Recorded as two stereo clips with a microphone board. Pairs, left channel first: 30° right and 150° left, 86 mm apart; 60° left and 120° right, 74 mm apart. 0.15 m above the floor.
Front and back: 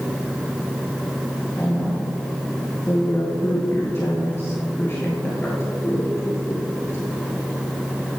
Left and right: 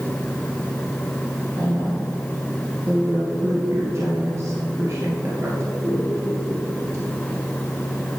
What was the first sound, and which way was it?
A woman speaking, 85° right.